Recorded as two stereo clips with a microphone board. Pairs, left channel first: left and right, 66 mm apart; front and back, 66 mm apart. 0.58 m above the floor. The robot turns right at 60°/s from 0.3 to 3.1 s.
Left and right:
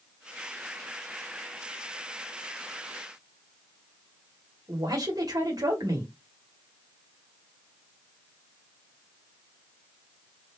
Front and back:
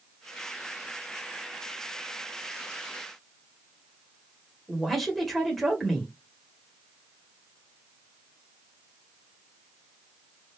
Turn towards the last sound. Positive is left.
turn(degrees=-90)